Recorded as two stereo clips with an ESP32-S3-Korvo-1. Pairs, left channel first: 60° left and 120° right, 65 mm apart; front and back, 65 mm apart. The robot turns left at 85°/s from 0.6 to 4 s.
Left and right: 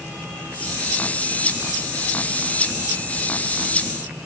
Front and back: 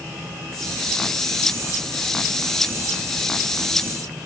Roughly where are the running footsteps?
I don't hear running footsteps.